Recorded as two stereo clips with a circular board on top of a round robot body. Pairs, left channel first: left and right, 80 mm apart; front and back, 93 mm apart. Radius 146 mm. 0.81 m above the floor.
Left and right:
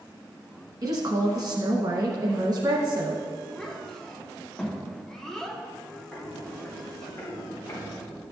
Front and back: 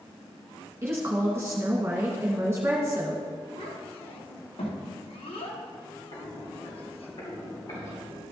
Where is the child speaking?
10° left, 1.4 m.